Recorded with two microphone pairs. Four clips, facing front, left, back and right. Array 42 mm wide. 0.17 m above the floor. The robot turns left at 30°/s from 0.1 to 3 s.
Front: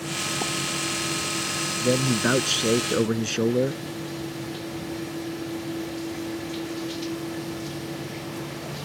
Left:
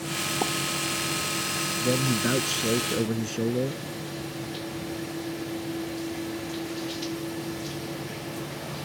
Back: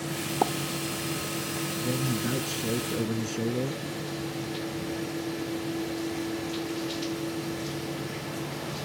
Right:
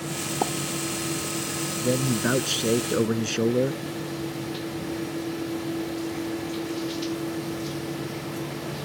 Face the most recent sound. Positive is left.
turn(degrees=-40)